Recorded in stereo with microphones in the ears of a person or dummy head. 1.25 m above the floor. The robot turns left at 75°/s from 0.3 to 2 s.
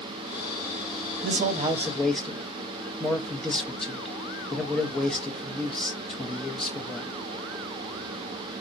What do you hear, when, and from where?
1.2 s a man speaking: 120° right, 0.5 m; by 7.1 s straight behind, 0.5 m